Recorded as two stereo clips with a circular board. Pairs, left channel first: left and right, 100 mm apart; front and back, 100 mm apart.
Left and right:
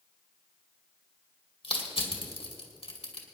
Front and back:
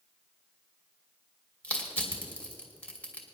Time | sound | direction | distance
1.6 | crushing | 75° left | 2.5 m